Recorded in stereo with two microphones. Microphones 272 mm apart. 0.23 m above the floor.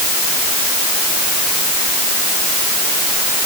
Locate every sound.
Only background noise.